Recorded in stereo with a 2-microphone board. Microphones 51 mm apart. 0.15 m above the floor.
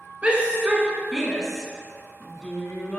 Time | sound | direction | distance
0.2 | a shout | 25° right (ahead or behind) | 1.9 m